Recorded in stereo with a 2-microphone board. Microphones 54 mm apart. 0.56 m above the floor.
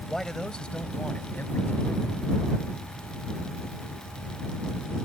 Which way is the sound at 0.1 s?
5° left (ahead or behind).